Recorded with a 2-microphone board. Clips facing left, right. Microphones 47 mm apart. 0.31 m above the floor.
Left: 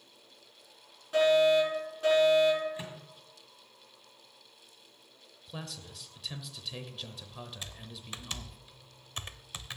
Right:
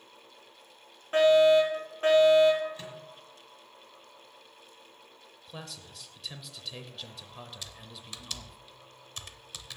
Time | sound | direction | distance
1.1 | a fire alarm | 40° right (ahead or behind) | 5.5 m
2.8 | a microwave | 20° left (ahead or behind) | 2.0 m
5.5 | a man speaking | centre (ahead or behind) | 0.9 m
7.6 | typing on a keyboard | 30° left (ahead or behind) | 0.6 m